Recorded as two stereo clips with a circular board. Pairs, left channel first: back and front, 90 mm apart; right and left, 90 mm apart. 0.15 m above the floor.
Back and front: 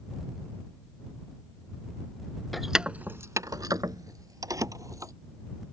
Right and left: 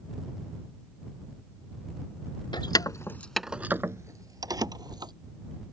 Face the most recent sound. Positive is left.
turn(degrees=50)